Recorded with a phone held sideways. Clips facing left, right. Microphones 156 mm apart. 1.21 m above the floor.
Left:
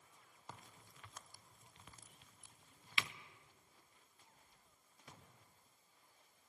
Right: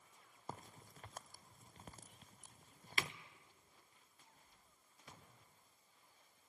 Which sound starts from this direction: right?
A crack, at 0.5 s.